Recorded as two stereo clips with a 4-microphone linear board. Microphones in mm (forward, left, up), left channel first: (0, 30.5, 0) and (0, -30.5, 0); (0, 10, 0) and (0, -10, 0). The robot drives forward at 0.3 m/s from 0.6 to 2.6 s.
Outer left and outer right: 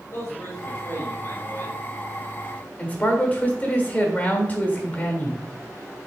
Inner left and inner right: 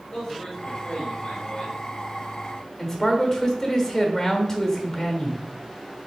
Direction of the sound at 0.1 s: 45° left (ahead or behind).